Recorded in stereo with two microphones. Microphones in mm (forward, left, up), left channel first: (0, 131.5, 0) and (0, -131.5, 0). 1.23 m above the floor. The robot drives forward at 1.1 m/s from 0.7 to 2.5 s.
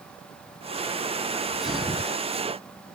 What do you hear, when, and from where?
1.3 s a sneeze: centre (ahead or behind)